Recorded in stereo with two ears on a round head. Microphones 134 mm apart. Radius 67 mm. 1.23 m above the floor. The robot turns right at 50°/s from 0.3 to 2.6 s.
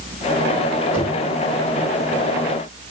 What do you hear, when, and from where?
0.9 s knocking: 10° right (ahead or behind), 5.5 m; by 1.3 s 30° right (ahead or behind), 5.5 m